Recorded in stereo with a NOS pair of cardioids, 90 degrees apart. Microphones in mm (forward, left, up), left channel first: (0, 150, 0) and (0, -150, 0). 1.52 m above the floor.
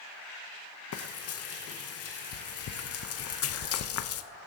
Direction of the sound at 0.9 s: 50° left.